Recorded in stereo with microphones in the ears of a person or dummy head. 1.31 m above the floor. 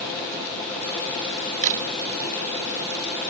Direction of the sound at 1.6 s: 45° right (ahead or behind).